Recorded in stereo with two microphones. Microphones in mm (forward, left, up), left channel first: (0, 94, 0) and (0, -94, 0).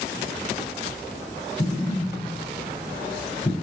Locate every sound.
1.6 s an explosion: 25° left (ahead or behind), 4.5 m